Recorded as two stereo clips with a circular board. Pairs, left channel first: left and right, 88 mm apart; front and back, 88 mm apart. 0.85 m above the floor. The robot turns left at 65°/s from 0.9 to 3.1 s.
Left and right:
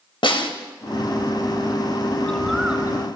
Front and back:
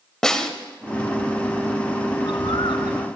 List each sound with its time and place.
0.2 s a snare drum: 85° left, 1.9 m
2.2 s a bird: 20° left, 1.7 m; by 3.1 s 40° right, 1.7 m